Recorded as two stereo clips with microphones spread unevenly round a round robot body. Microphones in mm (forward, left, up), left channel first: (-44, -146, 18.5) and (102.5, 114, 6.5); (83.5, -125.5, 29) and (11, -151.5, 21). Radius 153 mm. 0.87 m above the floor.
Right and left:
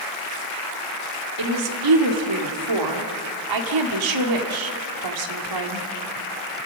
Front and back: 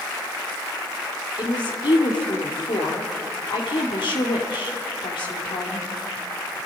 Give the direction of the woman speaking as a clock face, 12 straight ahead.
10 o'clock.